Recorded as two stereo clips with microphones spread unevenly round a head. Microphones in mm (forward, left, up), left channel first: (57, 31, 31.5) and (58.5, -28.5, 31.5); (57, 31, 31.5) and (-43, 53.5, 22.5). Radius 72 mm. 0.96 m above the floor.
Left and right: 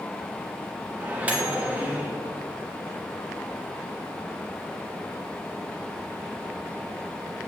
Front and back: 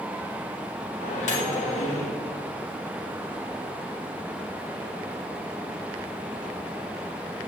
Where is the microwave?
25° right, 2 m.